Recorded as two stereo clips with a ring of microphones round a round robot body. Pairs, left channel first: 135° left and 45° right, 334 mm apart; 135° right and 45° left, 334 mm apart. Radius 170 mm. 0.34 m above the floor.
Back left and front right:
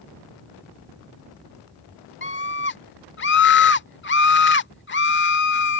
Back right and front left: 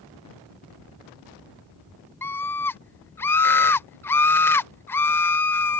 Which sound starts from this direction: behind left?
A scream, at 2.2 s.